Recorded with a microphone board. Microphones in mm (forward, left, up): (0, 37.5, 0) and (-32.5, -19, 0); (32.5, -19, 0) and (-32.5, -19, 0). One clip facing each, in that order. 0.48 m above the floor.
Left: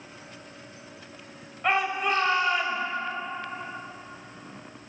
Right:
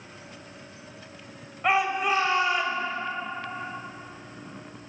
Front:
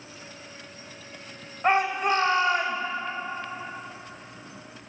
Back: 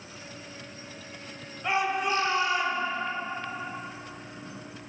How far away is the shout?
About 2.0 m.